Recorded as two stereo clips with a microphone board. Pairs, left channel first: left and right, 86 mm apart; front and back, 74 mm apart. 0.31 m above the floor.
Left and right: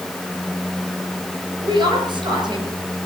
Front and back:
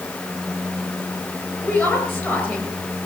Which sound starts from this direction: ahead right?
A woman speaking, at 1.6 s.